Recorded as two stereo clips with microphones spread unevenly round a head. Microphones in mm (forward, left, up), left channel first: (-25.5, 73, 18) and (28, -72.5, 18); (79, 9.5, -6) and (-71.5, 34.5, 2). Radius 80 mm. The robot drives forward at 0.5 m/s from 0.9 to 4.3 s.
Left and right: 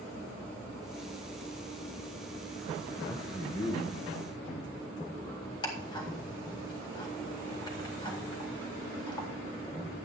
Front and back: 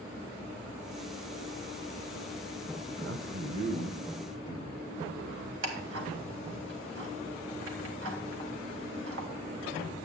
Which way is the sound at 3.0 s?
175° right.